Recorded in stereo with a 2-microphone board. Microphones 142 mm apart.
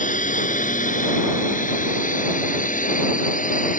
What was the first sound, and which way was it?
A drone, 65° left (ahead or behind).